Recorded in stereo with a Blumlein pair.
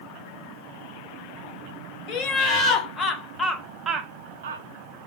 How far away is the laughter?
About 1.3 m.